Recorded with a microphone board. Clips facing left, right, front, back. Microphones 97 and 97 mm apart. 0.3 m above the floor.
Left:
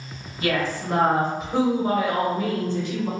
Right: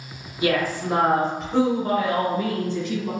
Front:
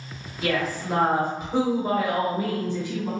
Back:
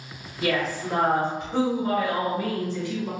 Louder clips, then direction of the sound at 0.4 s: Right 2 dB, even; 95° right.